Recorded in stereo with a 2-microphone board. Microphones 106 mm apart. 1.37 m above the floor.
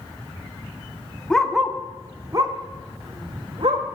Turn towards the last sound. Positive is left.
turn(degrees=-65)  # may be behind; listen again after turning